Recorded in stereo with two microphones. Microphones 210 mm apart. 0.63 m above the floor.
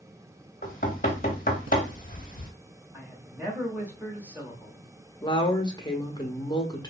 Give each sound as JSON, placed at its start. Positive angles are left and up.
{"t": 0.6, "sound": "knocking", "side_deg": 45, "distance_m": 0.8}
{"t": 2.9, "sound": "a man speaking", "side_deg": -10, "distance_m": 1.0}
{"t": 5.2, "sound": "a woman speaking", "side_deg": 20, "distance_m": 0.7}